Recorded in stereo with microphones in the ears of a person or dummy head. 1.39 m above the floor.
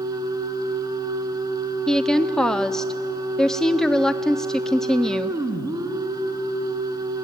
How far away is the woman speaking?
About 0.5 m.